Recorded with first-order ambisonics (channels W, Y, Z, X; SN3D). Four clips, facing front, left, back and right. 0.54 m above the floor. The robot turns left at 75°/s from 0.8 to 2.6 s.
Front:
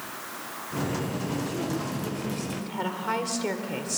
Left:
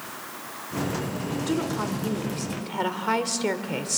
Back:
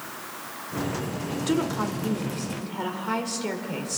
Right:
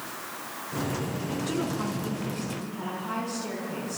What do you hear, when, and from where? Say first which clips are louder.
1.5 s a woman speaking: left 4 dB, back 5 dB; 165° left, 1.8 m; by 4.0 s 80° left, 1.8 m